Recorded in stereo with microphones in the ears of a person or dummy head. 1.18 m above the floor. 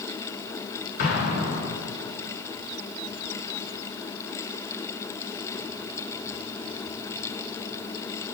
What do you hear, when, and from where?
1.0 s an explosion: 55° left (ahead or behind), 5 m